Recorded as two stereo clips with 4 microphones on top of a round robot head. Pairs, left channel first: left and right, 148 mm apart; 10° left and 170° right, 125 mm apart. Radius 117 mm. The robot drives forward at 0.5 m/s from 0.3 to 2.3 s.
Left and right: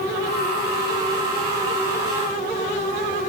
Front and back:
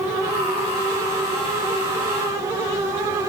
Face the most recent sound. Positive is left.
No sound to turn to.